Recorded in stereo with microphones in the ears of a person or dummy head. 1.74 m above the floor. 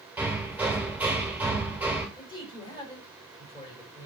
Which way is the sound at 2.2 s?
20° left (ahead or behind).